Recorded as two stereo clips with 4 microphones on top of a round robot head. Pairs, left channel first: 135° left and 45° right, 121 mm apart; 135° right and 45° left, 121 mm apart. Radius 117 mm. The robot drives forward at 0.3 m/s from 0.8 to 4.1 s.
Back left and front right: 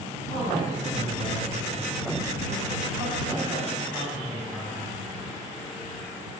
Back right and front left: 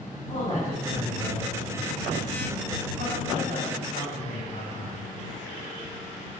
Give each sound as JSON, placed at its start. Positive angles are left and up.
{"t": 0.3, "sound": "a man speaking", "azimuth_deg": -175, "distance_m": 6.0}